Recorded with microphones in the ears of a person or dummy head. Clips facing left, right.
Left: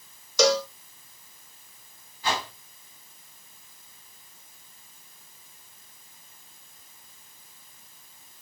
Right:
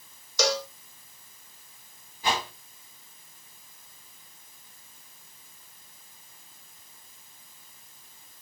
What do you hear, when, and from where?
0.4 s a cowbell: 65° left (ahead or behind), 0.8 m
2.2 s a whoosh: 15° right (ahead or behind), 3 m